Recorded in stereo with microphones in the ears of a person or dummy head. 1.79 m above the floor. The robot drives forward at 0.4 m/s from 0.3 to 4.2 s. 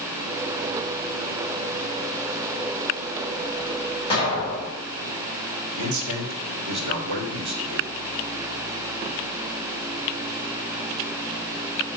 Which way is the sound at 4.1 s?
30° left (ahead or behind).